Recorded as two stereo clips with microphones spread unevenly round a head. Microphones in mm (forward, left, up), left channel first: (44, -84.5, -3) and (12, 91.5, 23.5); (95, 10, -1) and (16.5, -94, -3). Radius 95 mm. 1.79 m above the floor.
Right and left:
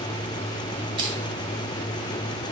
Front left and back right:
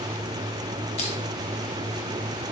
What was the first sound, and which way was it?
Crushing, 55° left.